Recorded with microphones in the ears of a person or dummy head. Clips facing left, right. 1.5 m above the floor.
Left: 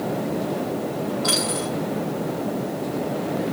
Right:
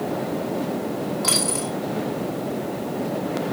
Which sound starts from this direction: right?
A dropped coin, at 1.2 s.